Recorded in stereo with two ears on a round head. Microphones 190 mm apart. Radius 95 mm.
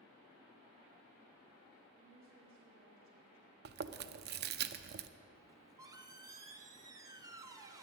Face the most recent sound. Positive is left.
turn(degrees=-15)  # may be behind; listen again after turning